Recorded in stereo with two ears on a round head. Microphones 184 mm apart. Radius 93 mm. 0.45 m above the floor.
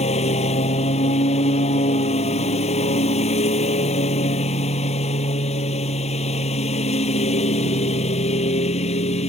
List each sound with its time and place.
0.0 s a lawn mower: 35° left (ahead or behind)